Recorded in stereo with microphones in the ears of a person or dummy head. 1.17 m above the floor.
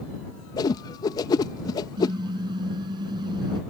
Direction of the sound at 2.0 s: 20° right (ahead or behind).